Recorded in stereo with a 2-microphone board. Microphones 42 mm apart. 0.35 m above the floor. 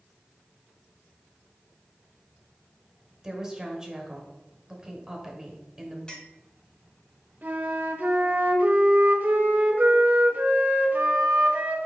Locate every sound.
3.2 s a woman speaking: 15° right (ahead or behind), 1.5 m
6.1 s a clink: 20° left (ahead or behind), 1.4 m
7.4 s a flute: 45° right (ahead or behind), 1.1 m